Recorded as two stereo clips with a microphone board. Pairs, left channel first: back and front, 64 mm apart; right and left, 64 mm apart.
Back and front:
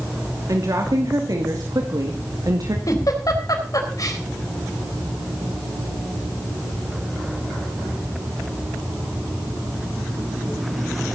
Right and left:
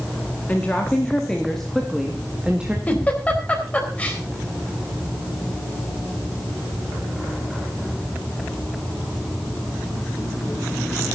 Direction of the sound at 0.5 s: 25° right.